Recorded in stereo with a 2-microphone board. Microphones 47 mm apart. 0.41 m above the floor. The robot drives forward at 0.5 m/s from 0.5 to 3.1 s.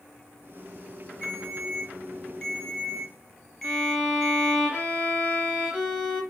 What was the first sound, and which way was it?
A ringtone, 10° left (ahead or behind).